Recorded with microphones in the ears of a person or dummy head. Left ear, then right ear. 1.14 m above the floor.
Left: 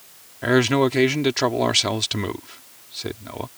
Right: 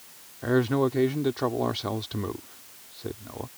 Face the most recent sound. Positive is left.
turn(degrees=75)  # may be behind; listen again after turning